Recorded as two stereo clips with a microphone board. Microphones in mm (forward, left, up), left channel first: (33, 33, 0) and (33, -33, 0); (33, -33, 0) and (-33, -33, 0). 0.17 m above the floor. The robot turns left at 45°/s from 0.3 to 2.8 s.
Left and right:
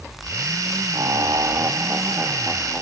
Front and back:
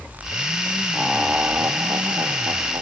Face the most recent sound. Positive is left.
turn(degrees=-175)